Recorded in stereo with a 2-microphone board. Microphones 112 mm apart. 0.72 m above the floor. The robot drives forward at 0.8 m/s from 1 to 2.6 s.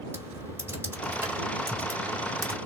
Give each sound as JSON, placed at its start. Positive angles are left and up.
{"t": 0.1, "sound": "typing on a keyboard", "side_deg": -20, "distance_m": 2.5}